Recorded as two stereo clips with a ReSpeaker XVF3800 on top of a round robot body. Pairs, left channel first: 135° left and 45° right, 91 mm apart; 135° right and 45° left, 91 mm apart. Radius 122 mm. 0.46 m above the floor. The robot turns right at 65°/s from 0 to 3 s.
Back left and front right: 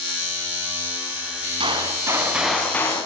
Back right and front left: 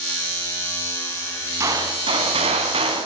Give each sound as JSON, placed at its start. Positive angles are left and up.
{"t": 1.6, "sound": "a gunshot", "azimuth_deg": -15, "distance_m": 4.5}